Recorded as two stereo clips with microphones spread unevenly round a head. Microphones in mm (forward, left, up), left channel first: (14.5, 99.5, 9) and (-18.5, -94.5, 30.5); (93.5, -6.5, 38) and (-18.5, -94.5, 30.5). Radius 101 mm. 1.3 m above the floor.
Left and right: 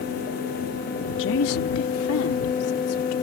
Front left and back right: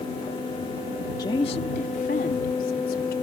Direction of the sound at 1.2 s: 110° left.